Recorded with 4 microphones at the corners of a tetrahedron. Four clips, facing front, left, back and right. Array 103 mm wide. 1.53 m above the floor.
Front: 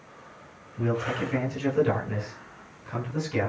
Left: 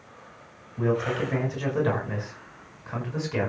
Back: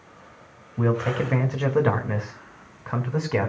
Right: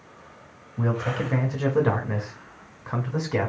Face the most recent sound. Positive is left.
turn(degrees=-150)